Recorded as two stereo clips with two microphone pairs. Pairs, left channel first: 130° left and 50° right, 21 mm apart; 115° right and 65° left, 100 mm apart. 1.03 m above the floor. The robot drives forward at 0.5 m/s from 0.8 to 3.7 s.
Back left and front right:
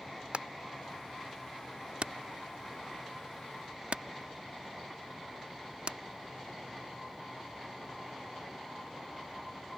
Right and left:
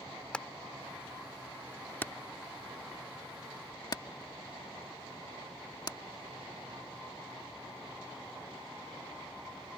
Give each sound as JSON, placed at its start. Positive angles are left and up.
{"t": 0.3, "sound": "hammering", "azimuth_deg": -35}